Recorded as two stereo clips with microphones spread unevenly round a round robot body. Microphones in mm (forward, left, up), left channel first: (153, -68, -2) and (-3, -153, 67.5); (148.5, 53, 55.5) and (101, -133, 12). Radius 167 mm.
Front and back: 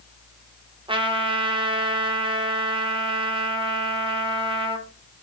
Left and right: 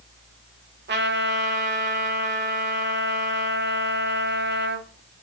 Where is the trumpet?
80° right, 1.2 m.